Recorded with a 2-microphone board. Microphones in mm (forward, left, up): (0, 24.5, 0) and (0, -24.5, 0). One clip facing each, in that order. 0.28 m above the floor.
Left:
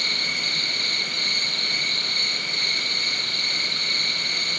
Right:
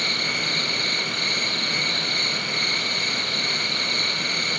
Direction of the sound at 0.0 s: 5° left (ahead or behind).